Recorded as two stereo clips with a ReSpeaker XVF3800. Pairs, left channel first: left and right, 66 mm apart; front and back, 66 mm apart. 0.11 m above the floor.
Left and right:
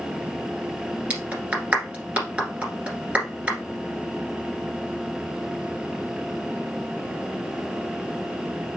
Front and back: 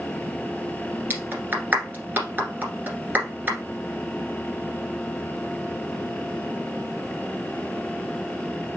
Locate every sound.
1.1 s a clap: 150° right, 1.6 m